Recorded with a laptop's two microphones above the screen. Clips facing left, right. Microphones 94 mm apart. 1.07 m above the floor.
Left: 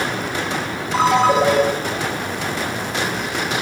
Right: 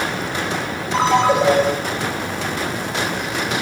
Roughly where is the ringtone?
Centre.